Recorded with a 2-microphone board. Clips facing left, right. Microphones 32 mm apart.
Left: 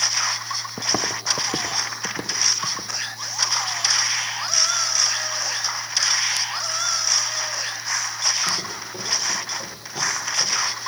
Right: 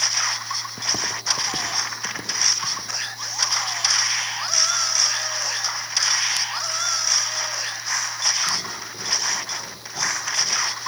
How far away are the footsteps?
About 0.7 m.